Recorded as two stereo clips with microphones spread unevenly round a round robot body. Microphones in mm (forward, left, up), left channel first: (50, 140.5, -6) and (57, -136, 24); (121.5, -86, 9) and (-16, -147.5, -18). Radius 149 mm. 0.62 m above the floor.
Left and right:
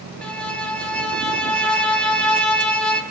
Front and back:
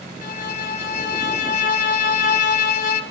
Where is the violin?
5° left, 3.5 m.